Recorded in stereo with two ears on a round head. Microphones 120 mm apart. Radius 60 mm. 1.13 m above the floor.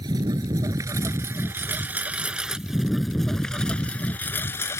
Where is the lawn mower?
30° right (ahead or behind); by 4.8 s 20° left (ahead or behind).